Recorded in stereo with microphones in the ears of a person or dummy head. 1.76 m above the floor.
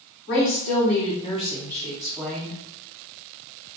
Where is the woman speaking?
65° left (ahead or behind), 1.2 m; by 2.6 s 15° right (ahead or behind), 1.3 m.